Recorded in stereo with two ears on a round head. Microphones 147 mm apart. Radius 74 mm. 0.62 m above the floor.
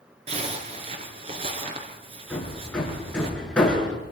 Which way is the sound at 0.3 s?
40° right (ahead or behind).